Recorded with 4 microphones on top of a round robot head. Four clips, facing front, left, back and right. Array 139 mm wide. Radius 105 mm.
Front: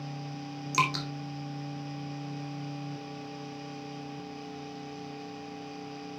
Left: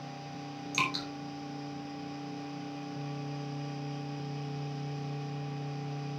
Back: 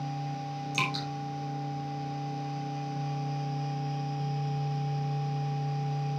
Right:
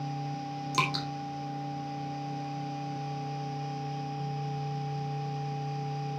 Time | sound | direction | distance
0.7 | dripping | 45° right | 2.5 m